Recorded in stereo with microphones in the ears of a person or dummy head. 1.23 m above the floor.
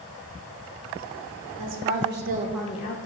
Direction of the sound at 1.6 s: 65° right (ahead or behind).